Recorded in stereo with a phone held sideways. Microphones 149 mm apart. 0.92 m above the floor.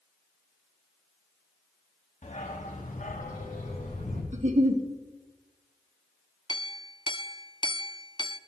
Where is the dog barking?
55° left (ahead or behind), 3 m; by 4.2 s 65° left (ahead or behind), 4.5 m.